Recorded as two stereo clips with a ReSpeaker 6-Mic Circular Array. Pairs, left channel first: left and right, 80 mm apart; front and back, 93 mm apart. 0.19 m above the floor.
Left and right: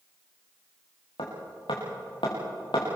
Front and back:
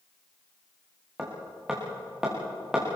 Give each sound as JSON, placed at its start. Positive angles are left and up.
{"t": 1.2, "sound": "hammering", "azimuth_deg": 95, "distance_m": 6.5}